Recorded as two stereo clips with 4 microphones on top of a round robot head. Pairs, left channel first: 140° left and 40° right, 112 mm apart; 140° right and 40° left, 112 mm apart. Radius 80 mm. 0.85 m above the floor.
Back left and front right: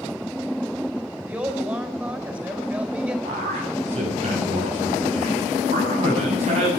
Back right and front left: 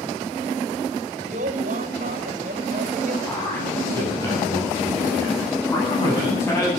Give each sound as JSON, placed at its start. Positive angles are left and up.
{"t": 1.2, "sound": "a woman speaking", "azimuth_deg": 35, "distance_m": 3.5}
{"t": 3.2, "sound": "a man speaking", "azimuth_deg": -70, "distance_m": 8.5}